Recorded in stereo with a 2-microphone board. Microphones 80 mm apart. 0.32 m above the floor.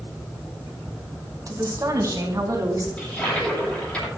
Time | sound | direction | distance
1.5 | a woman speaking | 45° right (ahead or behind) | 2.5 m
3.0 | a toilet flushing | 15° left (ahead or behind) | 8 m